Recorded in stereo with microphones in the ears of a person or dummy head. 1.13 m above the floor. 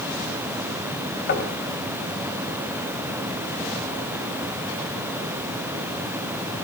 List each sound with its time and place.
1.3 s knocking: 65° left (ahead or behind), 4 m